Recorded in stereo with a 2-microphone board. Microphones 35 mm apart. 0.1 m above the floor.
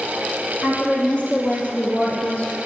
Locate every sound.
0.6 s a woman speaking: 50° left (ahead or behind), 3.5 m; by 2.6 s 45° left (ahead or behind), 1.8 m